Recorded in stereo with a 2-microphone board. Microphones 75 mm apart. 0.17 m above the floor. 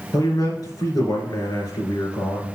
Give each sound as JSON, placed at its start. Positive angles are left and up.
{"t": 0.1, "sound": "a man speaking", "side_deg": 60, "distance_m": 3.0}